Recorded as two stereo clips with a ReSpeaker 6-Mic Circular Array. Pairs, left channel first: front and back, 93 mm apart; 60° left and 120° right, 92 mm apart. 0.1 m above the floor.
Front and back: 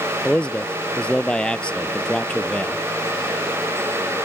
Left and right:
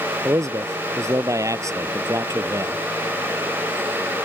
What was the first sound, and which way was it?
A man speaking, 75° right.